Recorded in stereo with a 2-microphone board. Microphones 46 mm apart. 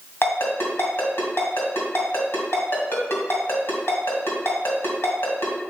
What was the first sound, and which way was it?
A ringtone, 55° left (ahead or behind).